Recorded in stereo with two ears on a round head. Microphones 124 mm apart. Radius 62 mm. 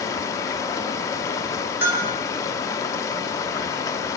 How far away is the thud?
No thud in this recording.